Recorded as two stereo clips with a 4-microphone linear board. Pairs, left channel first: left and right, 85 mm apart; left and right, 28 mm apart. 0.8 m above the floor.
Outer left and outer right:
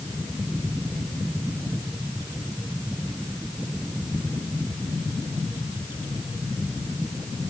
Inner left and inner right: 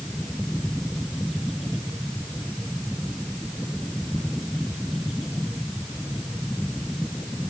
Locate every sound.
Only background noise.